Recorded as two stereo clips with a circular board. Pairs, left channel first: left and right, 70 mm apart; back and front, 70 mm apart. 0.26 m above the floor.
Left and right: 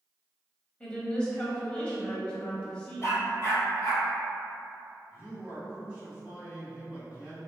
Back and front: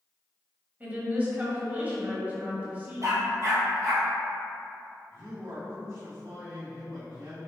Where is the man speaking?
30° right, 1.8 m.